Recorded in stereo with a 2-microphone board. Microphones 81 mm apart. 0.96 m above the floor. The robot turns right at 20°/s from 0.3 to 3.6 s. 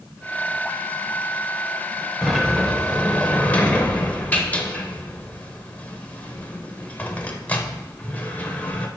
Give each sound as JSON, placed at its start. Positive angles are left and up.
{"t": 2.2, "sound": "a sliding door", "side_deg": -5, "distance_m": 1.1}